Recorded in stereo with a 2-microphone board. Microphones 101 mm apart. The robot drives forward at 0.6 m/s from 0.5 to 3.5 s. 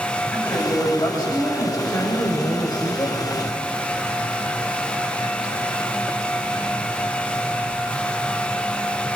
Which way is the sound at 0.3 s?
35° left (ahead or behind).